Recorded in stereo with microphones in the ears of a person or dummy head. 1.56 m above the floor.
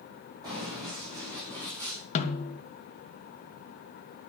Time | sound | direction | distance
0.4 | running footsteps | 25° right (ahead or behind) | 4.5 m
2.1 | a snare drum | 40° left (ahead or behind) | 1.5 m